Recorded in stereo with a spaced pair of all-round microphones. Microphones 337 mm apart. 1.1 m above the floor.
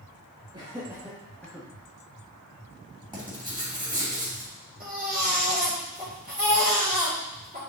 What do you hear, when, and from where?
0.5 s laughter: 15° right (ahead or behind), 1.6 m; by 1.7 s 10° left (ahead or behind), 1.3 m
3.1 s writing: 15° right (ahead or behind), 3 m
4.8 s a baby crying: 25° right (ahead or behind), 2.5 m